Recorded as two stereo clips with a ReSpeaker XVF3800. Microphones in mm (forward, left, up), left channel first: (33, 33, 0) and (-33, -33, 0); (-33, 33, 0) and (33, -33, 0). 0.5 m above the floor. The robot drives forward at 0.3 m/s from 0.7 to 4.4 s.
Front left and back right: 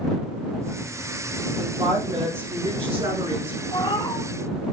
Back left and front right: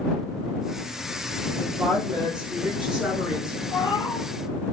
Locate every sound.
1.6 s a woman speaking: 125° right, 8 m
3.7 s a cat meowing: 90° left, 2.5 m; by 4.3 s 95° left, 2.5 m